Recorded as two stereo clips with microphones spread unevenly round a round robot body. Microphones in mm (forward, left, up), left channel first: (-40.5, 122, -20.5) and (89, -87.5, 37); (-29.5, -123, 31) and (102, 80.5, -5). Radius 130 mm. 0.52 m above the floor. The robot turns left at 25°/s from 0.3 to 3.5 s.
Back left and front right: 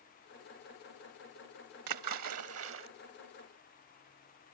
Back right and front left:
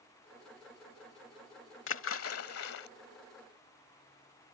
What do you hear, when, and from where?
1.9 s a splash: 80° right; by 2.9 s 110° right